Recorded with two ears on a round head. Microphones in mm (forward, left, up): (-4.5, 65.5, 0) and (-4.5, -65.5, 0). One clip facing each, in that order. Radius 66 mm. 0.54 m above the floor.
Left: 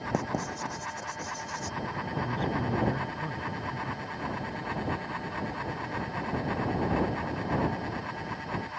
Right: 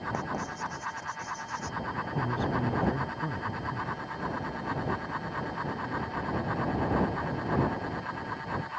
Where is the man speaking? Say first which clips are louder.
Right 1 dB; 10° right (ahead or behind).